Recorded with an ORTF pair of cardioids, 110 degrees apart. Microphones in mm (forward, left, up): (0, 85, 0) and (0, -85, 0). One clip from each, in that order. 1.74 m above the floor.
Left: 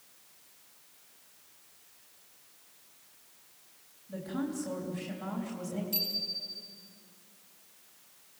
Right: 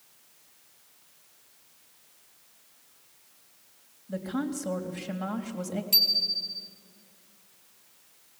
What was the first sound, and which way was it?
A woman speaking, 45° right.